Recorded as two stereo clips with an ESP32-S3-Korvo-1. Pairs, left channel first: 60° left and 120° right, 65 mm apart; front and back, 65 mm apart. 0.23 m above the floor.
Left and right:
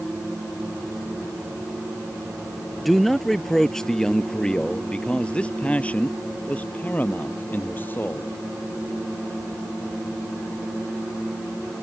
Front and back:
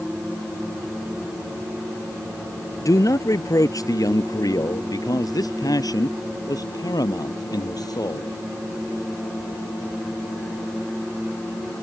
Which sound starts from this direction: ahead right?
A man speaking, at 2.8 s.